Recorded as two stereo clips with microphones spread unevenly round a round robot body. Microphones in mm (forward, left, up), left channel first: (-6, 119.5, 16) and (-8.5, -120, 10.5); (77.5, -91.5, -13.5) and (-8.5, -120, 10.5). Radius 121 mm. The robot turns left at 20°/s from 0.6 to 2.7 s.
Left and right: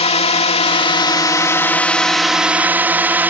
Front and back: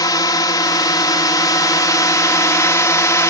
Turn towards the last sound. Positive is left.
turn(degrees=-10)